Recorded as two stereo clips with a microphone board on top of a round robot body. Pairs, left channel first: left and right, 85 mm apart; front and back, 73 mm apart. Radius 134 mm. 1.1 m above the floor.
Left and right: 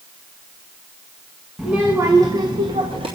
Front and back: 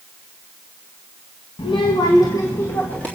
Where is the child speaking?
Straight ahead, 1.1 m; by 3.1 s 75° right, 1.6 m.